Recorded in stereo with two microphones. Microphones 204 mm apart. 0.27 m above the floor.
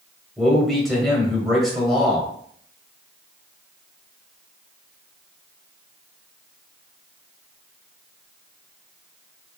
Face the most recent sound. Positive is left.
turn(degrees=0)  # may be behind; listen again after turning